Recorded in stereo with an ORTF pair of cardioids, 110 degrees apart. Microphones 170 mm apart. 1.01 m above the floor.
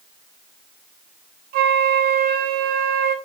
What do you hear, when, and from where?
1.5 s a flute: 65° right, 1.2 m